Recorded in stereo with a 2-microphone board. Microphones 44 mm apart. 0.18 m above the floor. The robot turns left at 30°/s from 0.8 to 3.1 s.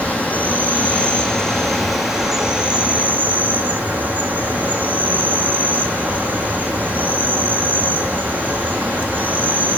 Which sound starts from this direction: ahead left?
An insect, at 0.0 s.